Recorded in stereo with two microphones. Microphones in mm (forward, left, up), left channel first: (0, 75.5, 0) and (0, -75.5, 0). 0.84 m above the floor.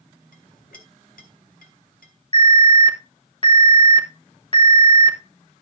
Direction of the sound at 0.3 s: 70° left (ahead or behind).